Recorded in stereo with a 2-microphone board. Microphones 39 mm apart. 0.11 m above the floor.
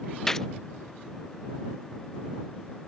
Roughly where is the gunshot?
Centre.